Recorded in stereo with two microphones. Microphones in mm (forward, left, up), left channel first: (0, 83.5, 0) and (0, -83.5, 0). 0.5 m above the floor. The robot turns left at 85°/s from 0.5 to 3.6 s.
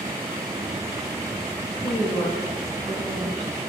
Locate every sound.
1.8 s a woman speaking: 100° left, 4 m; by 3.6 s 55° right, 4 m